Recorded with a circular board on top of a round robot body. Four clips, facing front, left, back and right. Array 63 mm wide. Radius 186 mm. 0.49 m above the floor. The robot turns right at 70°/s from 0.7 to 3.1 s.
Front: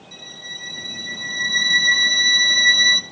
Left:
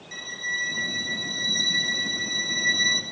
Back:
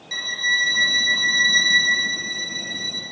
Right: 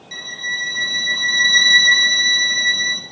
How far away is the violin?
About 0.5 m.